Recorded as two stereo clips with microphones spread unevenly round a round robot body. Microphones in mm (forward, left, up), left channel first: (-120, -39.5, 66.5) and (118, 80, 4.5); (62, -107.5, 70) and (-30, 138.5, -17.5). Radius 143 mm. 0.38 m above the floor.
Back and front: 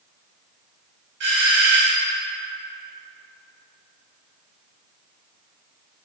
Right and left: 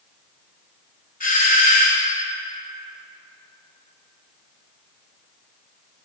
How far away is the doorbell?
About 3 m.